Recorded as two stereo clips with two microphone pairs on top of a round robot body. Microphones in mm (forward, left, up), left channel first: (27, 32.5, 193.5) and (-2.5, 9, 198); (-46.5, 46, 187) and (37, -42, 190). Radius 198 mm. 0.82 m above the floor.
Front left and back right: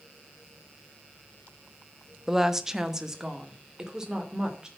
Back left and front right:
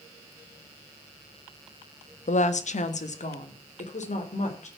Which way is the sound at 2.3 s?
135° left.